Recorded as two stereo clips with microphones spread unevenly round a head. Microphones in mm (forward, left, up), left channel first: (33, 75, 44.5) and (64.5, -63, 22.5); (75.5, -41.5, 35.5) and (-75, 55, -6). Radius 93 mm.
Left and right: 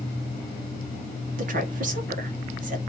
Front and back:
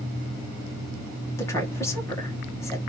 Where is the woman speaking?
110° right, 1.6 m.